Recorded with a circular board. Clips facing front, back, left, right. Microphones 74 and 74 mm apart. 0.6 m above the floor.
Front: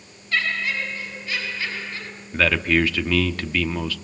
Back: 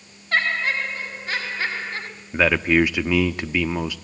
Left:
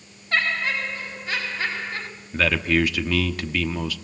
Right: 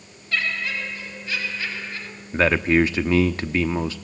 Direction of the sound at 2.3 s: 120° right.